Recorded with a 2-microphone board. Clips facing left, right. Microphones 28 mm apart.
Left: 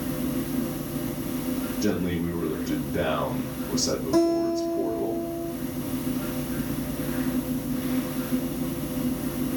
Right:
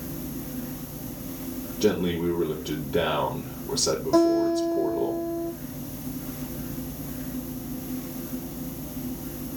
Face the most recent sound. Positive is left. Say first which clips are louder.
# right 2 dB
turn(degrees=-20)  # may be behind; listen again after turning